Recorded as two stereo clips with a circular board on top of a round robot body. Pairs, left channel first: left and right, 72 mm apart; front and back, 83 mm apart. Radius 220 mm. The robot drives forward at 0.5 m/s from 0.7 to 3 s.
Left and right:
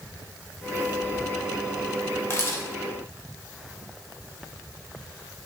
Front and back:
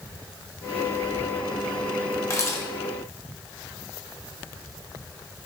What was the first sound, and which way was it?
A camera shutter, 45° left.